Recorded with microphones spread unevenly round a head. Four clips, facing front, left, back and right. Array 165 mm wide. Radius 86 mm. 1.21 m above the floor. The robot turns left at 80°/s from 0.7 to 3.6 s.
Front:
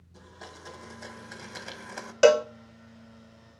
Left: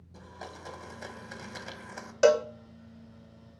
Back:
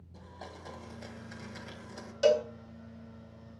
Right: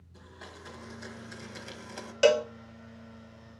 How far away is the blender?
About 1.6 m.